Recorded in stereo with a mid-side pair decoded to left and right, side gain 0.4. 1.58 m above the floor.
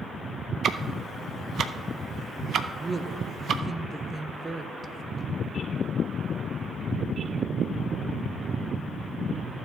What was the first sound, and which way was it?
Ticking, 65° right.